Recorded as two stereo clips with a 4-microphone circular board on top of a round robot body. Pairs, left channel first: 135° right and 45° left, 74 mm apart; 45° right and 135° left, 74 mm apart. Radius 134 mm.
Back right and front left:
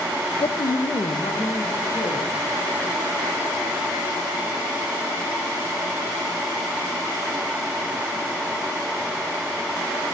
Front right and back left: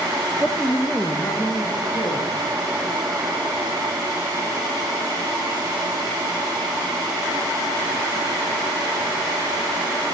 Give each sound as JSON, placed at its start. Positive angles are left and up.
{"t": 0.4, "sound": "a man speaking", "azimuth_deg": -145, "distance_m": 0.6}